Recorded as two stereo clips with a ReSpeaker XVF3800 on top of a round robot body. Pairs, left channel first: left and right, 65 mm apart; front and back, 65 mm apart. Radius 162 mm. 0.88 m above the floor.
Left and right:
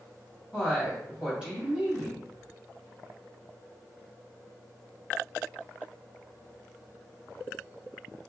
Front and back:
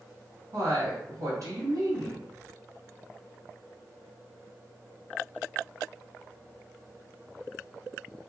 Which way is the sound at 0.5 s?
165° right.